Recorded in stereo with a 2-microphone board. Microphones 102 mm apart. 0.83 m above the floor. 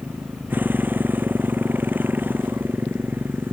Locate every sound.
0.0 s a motorcycle: 15° right (ahead or behind); by 3.5 s 20° right (ahead or behind)